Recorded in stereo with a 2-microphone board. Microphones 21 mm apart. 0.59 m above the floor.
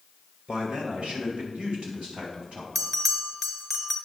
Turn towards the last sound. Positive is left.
turn(degrees=5)  # may be behind; listen again after turning